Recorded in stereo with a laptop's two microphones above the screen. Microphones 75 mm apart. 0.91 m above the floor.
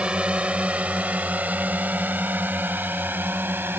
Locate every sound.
0.0 s a drone: 15° right (ahead or behind); by 3.8 s 30° right (ahead or behind)